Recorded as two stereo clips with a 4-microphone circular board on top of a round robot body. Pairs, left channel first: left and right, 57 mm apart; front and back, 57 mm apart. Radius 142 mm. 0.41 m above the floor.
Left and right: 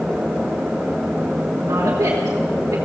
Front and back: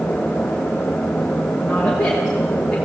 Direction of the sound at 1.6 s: 85° right.